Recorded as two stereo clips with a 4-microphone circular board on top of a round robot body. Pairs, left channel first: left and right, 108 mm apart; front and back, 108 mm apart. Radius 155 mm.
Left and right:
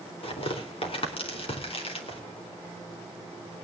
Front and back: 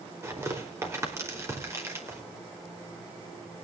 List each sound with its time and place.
0.2 s tearing paper: 115° left, 3.5 m